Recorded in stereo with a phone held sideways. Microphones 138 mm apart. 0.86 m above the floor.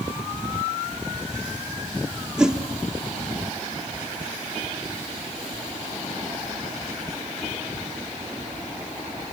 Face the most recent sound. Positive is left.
turn(degrees=-5)  # may be behind; listen again after turning